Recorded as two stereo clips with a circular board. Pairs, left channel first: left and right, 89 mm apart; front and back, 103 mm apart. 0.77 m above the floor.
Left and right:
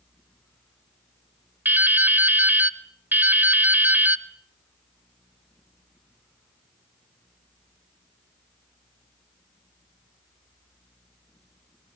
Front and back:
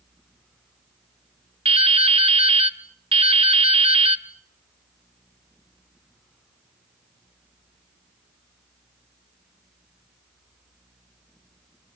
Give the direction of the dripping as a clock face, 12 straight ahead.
5 o'clock.